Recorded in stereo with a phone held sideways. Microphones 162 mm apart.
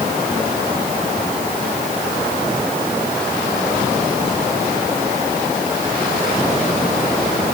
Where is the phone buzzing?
I don't hear a phone buzzing.